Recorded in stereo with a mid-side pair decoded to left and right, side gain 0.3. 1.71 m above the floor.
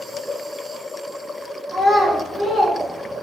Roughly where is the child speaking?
Ahead right.